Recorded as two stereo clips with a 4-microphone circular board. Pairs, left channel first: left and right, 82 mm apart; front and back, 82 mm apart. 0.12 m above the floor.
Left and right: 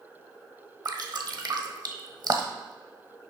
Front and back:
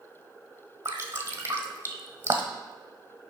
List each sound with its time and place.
0.8 s dripping: 125° right, 1.2 m